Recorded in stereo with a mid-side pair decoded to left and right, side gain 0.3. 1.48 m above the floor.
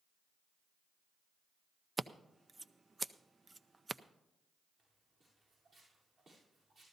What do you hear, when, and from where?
2.0 s scissors: 35° right, 0.5 m
4.8 s footsteps: 65° right, 7.5 m